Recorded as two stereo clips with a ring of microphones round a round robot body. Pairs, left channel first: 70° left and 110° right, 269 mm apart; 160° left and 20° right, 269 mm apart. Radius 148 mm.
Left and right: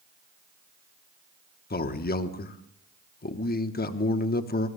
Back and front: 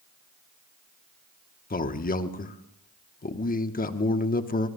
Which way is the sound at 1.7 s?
110° left.